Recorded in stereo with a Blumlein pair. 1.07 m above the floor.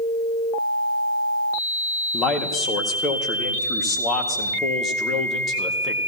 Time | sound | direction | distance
2.1 | a man speaking | 25° left | 1.9 m